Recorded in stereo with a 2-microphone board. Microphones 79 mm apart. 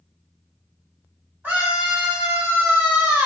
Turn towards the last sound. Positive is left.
turn(degrees=-25)  # may be behind; listen again after turning